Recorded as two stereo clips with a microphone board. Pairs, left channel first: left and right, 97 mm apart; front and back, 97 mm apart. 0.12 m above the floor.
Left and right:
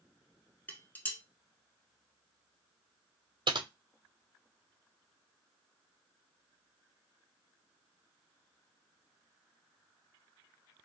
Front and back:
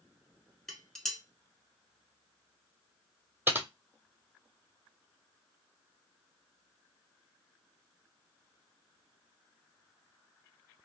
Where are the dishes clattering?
80° left, 0.7 m.